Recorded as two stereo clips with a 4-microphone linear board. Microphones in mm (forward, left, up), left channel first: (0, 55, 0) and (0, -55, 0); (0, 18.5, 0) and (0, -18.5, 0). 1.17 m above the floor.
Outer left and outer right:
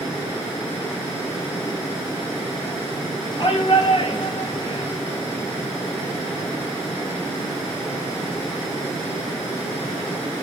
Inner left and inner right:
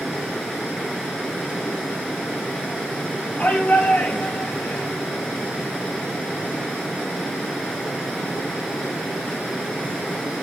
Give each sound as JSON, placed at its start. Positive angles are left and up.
{"t": 3.4, "sound": "a shout", "side_deg": 40, "distance_m": 9.0}